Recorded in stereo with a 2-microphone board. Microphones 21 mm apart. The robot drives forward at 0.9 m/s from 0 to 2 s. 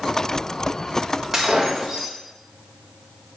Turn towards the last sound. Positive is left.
turn(degrees=-5)  # may be behind; listen again after turning